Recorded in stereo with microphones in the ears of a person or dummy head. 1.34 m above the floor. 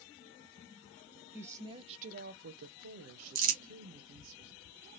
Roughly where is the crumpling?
Right.